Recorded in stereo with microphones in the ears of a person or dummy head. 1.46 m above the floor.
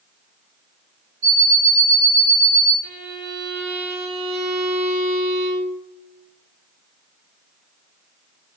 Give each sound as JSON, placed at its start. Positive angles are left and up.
{"t": 1.2, "sound": "an alarm clock", "side_deg": -50, "distance_m": 2.0}
{"t": 2.8, "sound": "a violin", "side_deg": -55, "distance_m": 2.5}